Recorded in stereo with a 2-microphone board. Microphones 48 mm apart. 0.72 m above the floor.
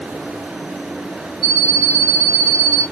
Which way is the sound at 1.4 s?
Centre (ahead or behind).